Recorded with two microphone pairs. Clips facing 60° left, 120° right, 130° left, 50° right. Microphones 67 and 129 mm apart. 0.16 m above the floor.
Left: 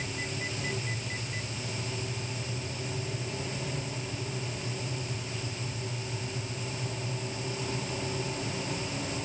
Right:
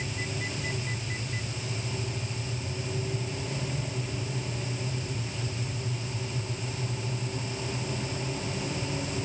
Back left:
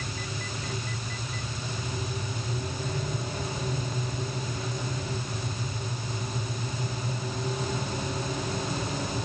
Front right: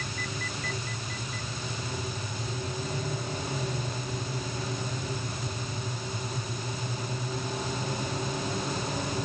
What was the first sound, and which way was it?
Only background noise.